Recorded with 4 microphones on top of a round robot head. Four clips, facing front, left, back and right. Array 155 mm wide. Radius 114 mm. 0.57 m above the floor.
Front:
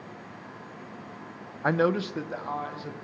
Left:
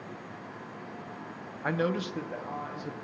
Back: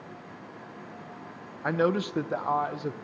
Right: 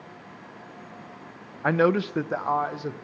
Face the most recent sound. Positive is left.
turn(degrees=-135)